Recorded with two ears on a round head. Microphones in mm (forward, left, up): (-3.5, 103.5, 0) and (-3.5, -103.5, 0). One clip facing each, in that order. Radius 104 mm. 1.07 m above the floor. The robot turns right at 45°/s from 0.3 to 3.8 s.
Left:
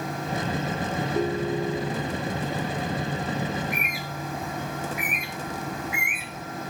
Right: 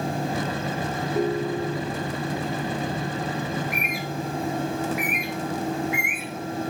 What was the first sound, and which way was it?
A ringtone, 5° right.